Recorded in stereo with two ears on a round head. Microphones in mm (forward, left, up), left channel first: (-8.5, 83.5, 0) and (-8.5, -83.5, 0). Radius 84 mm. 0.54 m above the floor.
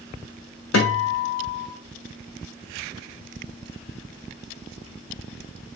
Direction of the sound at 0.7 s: 65° left (ahead or behind).